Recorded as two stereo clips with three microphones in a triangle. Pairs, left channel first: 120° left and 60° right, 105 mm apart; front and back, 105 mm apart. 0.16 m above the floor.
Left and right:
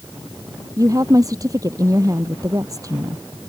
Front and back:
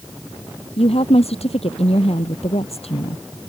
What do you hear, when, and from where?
0.8 s a woman speaking: 5° right